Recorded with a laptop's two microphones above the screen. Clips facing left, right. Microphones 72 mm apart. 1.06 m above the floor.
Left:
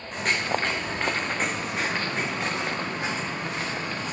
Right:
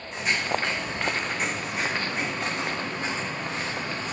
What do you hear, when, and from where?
0.1 s footsteps: 45° left (ahead or behind), 4 m; by 4.2 s 10° left (ahead or behind), 5.5 m